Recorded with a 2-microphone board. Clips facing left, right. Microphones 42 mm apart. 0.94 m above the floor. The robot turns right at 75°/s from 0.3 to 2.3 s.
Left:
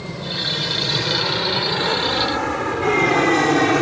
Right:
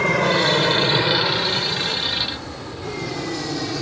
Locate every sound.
0.0 s an aircraft: 65° right (ahead or behind); by 3.8 s 50° left (ahead or behind)